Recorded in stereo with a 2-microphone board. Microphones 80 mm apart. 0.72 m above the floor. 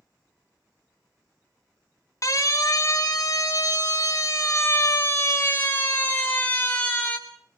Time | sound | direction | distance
2.2 | a siren | 45° left (ahead or behind) | 2 m